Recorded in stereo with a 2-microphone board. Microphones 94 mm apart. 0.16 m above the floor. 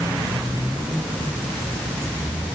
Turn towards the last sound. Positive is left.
No sound to turn to.